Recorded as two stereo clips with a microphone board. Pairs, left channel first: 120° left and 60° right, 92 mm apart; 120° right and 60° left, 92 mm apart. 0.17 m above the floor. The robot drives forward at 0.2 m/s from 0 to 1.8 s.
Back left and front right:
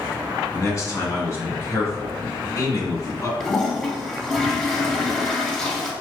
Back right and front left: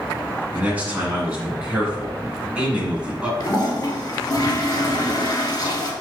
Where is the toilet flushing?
160° right, 1.2 m.